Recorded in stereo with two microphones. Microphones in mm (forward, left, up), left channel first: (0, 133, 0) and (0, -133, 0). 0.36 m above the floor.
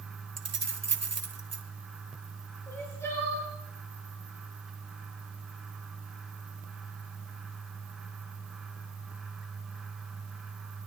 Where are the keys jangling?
70° right (ahead or behind), 1.5 m.